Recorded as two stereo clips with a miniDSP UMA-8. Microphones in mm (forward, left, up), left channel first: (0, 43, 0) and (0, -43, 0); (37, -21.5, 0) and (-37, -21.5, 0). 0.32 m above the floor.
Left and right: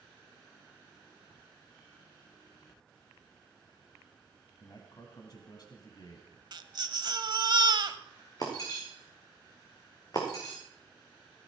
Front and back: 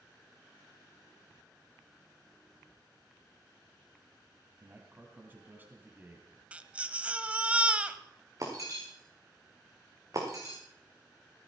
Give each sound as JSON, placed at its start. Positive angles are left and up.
{"t": 4.6, "sound": "a man speaking", "azimuth_deg": 120, "distance_m": 1.9}
{"t": 6.5, "sound": "a baby crying", "azimuth_deg": -105, "distance_m": 0.8}
{"t": 8.4, "sound": "breaking glass", "azimuth_deg": 135, "distance_m": 4.0}